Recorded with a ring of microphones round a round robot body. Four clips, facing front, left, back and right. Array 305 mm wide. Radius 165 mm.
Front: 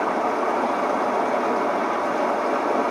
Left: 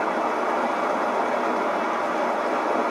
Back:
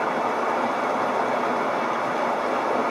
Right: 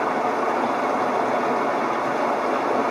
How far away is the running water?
About 1.2 m.